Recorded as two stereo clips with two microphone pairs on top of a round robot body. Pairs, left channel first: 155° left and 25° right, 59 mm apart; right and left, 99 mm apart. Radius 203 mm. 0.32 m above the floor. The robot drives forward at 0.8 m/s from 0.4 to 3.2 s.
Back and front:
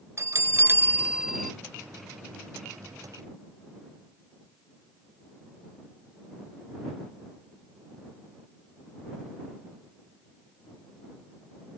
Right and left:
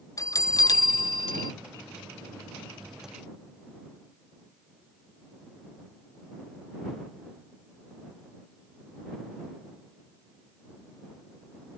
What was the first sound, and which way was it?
A bell, 35° right.